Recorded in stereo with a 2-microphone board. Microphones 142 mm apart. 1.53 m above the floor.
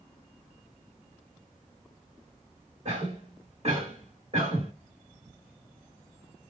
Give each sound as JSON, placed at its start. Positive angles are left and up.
{"t": 2.9, "sound": "a cough", "side_deg": -45, "distance_m": 3.0}